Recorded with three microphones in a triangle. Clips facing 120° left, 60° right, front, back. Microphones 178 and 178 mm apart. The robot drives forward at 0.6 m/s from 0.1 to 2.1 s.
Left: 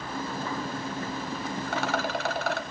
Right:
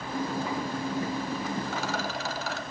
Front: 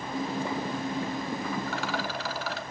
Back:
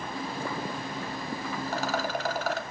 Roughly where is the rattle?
Behind left.